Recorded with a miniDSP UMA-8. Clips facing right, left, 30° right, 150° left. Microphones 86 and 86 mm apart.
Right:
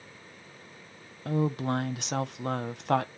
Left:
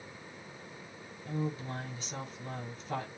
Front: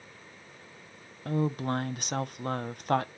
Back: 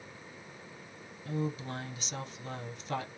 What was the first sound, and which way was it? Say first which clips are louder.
A woman speaking: right 8 dB, front 6 dB; 70° right.